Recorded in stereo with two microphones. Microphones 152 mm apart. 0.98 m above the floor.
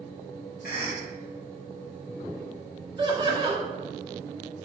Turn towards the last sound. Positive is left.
turn(degrees=-30)  # may be behind; listen again after turning